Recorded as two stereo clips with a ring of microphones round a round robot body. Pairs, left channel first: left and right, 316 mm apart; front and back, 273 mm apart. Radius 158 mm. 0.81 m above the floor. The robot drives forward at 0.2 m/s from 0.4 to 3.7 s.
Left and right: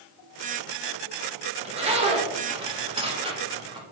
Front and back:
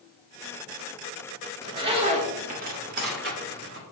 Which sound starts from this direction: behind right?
A zipper, at 1.6 s.